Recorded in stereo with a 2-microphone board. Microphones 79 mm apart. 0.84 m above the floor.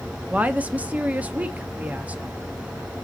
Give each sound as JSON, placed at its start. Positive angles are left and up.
{"t": 0.3, "sound": "a woman speaking", "side_deg": -20, "distance_m": 1.0}